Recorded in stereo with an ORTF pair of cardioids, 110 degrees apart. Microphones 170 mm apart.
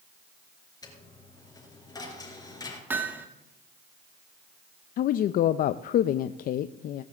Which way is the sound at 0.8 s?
20° left.